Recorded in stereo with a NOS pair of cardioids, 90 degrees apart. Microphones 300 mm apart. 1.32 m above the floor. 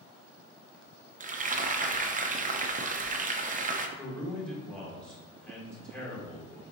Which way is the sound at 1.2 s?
25° right.